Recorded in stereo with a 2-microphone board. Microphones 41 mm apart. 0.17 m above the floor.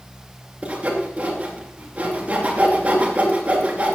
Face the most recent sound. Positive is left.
turn(degrees=-30)  # may be behind; listen again after turning